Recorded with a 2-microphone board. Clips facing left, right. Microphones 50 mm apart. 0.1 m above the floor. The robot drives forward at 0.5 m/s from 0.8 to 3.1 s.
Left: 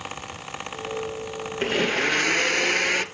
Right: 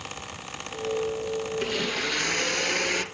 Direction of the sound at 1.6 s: 40° left (ahead or behind).